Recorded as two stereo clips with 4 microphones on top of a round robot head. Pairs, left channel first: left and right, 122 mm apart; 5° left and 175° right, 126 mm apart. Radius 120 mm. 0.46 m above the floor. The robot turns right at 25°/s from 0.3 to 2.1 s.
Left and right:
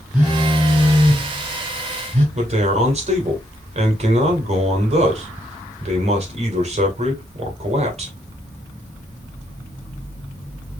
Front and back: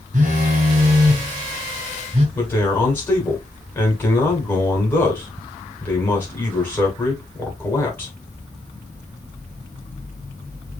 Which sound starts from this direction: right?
A man speaking, at 2.4 s.